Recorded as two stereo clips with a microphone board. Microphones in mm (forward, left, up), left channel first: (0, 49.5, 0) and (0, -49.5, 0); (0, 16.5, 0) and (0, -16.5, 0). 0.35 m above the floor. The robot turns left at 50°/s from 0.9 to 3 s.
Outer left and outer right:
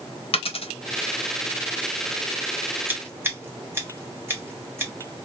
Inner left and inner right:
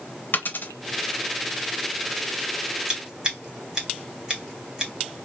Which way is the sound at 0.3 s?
65° left (ahead or behind).